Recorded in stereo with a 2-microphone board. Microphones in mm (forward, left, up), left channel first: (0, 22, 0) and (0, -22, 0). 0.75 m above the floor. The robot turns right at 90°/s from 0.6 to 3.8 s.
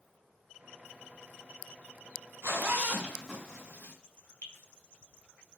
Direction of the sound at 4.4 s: 55° left (ahead or behind).